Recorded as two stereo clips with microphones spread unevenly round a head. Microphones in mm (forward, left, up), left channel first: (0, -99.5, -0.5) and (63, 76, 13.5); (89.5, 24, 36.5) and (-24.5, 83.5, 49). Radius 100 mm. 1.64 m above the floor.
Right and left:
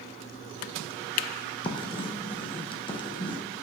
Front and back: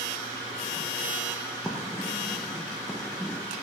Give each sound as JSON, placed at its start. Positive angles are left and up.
{"t": 1.6, "sound": "writing", "azimuth_deg": -125, "distance_m": 0.8}